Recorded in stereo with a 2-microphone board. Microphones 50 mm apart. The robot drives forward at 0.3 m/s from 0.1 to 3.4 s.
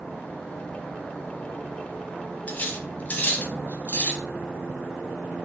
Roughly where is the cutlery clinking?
Left.